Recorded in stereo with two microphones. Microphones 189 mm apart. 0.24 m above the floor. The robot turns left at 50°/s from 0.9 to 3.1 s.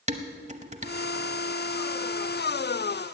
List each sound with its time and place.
0.1 s dishes clattering: 35° right (ahead or behind), 0.8 m